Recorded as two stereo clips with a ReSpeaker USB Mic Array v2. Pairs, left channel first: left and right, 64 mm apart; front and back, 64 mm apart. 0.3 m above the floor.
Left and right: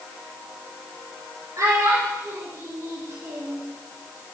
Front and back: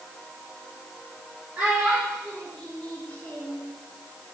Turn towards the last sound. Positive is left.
turn(degrees=-50)